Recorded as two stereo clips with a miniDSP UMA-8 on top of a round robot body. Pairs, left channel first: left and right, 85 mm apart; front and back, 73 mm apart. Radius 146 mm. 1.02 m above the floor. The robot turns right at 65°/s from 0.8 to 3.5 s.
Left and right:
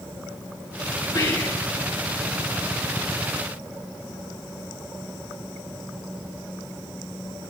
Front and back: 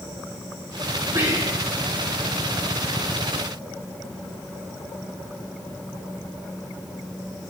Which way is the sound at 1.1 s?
130° left.